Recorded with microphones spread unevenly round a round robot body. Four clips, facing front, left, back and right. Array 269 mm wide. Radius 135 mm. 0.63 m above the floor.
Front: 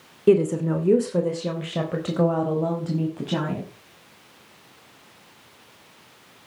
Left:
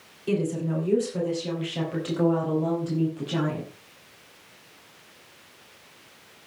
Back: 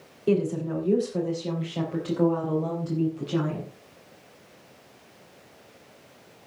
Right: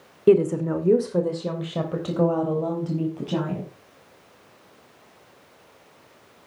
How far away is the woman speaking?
About 2 m.